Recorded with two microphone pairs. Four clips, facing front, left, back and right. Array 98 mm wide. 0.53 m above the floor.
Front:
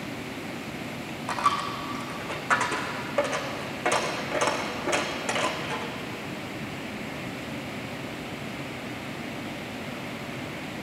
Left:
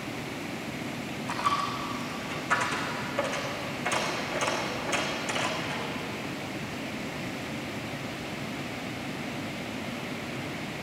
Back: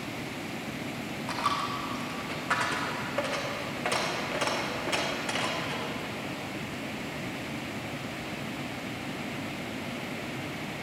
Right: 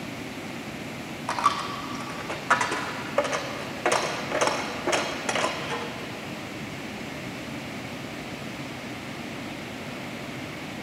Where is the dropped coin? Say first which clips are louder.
Right 3 dB, front 4 dB; 70° right, 1.7 m.